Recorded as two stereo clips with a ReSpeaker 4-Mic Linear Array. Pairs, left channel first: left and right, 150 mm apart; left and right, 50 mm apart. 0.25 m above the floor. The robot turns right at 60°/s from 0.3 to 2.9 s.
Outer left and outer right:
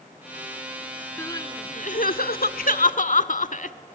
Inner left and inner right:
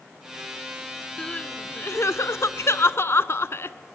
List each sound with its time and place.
1.2 s crying: 15° left, 0.5 m; by 3.8 s 120° left, 0.5 m